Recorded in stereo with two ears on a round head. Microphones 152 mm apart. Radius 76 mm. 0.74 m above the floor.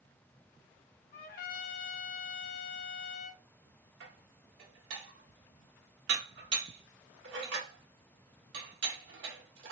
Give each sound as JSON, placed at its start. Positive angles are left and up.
{"t": 1.1, "sound": "a trumpet", "side_deg": 50, "distance_m": 0.5}
{"t": 4.0, "sound": "dishes clattering", "side_deg": -85, "distance_m": 1.2}